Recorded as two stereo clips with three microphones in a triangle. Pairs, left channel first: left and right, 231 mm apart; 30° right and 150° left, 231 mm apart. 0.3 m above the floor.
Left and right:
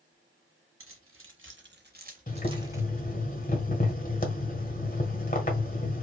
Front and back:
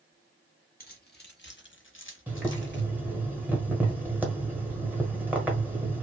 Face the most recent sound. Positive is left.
turn(degrees=75)